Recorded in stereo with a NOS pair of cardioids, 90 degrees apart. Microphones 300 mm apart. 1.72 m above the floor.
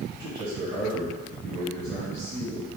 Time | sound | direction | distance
0.2 | a man speaking | 65° right | 1.9 m